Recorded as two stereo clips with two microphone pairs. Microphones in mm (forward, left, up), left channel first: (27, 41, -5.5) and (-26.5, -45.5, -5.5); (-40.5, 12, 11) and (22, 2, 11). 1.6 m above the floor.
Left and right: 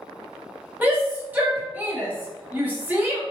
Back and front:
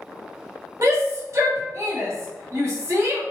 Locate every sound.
0.8 s a shout: 50° right, 1.3 m